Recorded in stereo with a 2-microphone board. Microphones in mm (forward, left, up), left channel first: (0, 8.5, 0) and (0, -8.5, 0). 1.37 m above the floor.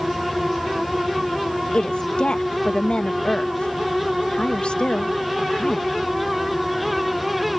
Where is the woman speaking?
80° left.